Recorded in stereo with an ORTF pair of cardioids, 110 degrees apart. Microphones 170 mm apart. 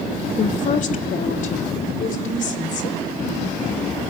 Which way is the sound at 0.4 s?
45° left.